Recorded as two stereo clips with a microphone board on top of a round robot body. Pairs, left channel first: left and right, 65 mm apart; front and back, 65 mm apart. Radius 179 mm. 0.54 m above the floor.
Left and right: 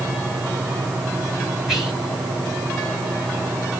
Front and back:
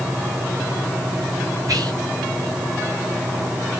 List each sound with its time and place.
1.7 s whispering: 170° right, 2.5 m